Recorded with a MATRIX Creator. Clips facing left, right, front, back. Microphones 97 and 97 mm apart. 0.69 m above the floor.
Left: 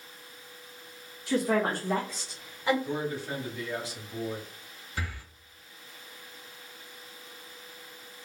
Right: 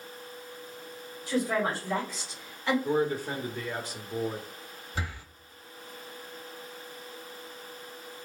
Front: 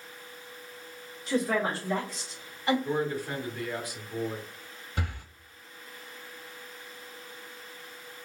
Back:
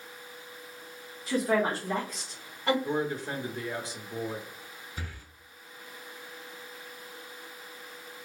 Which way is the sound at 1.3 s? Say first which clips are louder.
Left 2 dB, back 1 dB; 95° left.